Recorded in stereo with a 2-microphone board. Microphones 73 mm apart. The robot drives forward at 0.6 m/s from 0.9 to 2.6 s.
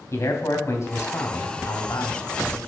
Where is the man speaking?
40° left (ahead or behind), 2 m; by 2.6 s 55° left (ahead or behind), 1.7 m.